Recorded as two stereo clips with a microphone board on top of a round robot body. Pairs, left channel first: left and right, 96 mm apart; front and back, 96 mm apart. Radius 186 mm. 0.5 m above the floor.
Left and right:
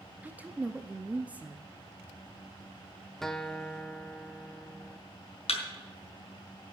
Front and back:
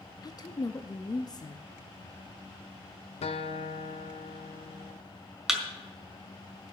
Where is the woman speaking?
20° right, 0.8 m.